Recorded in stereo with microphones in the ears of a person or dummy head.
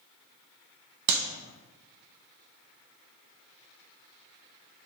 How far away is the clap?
About 0.7 m.